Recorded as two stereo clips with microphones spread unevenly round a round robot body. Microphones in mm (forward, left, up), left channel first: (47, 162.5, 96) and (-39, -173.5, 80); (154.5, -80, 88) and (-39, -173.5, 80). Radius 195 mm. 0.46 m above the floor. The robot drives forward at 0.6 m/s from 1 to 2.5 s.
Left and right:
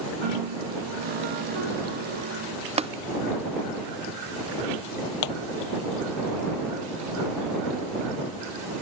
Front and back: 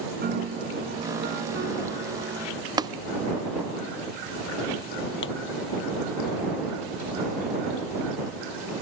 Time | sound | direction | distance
0.2 | a piano | 115° right | ?
2.8 | tapping | 130° right | ?
5.2 | a pop | 75° left | ?